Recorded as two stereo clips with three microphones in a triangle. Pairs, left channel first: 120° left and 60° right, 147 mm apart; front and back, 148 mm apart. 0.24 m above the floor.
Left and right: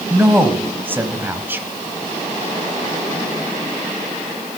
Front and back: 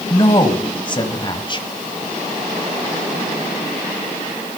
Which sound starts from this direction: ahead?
A woman speaking, at 0.1 s.